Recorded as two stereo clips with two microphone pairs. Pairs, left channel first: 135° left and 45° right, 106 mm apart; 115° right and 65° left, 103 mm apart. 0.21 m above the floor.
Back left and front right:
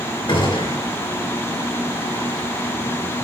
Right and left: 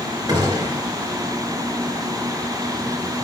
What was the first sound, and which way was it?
A gunshot, 100° left.